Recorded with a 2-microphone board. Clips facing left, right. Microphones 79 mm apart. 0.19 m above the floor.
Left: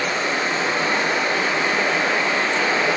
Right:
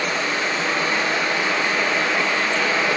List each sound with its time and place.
0.0 s running water: 25° left (ahead or behind), 0.9 m